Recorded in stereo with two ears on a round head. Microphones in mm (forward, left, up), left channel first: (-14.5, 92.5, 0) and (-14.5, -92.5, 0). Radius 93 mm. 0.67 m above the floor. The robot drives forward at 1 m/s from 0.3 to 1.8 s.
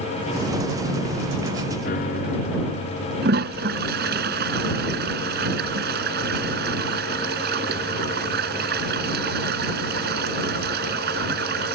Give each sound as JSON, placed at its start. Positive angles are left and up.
{"t": 1.8, "sound": "a piano", "side_deg": 45}
{"t": 3.2, "sound": "a toilet flushing", "side_deg": -50}